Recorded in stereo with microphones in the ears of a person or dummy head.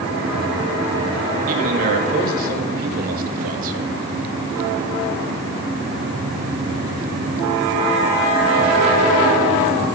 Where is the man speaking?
50° right (ahead or behind), 2 m.